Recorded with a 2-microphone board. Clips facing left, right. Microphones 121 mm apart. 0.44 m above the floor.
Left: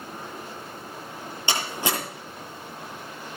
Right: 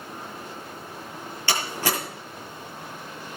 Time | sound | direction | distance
1.5 | a door slam | 20° left (ahead or behind) | 7 m